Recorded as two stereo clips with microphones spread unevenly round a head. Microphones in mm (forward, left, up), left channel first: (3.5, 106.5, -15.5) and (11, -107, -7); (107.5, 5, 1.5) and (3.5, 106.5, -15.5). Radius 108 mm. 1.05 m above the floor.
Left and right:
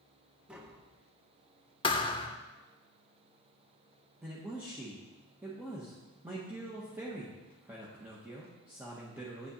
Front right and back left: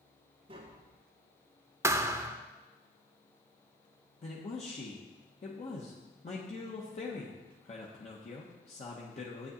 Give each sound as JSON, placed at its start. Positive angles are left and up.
{"t": 0.5, "sound": "tapping", "azimuth_deg": -175, "distance_m": 1.0}
{"t": 1.8, "sound": "a thud", "azimuth_deg": 80, "distance_m": 0.7}
{"t": 4.2, "sound": "a man speaking", "azimuth_deg": -5, "distance_m": 1.3}